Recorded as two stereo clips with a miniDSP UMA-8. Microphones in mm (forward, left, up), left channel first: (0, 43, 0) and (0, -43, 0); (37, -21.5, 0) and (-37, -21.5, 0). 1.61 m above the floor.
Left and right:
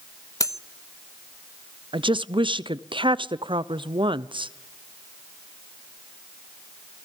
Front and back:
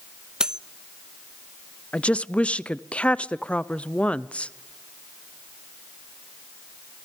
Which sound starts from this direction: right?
A woman speaking, at 1.9 s.